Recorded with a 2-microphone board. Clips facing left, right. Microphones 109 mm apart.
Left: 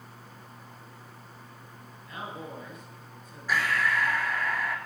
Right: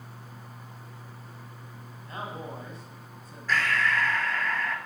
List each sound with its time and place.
2.0 s a man speaking: 35° right (ahead or behind), 1.6 m
3.5 s breathing: 10° left (ahead or behind), 0.6 m